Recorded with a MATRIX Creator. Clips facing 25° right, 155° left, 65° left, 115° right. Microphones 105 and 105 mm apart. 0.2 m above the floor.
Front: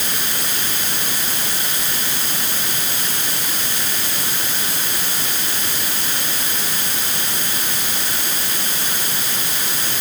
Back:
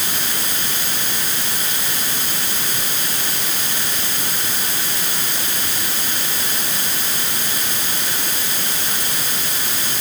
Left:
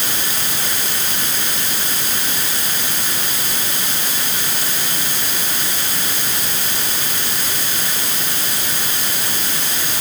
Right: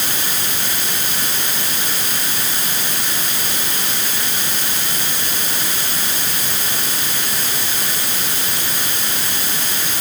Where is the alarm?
I don't hear an alarm.